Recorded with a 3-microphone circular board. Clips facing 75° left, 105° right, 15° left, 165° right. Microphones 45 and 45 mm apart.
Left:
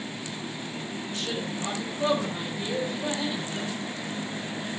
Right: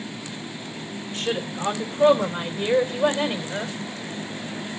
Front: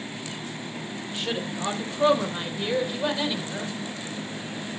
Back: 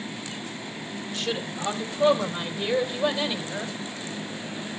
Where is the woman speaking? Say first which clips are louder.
Right 6 dB, even; 60° right, 4 m; by 3.8 s 80° right, 3.5 m.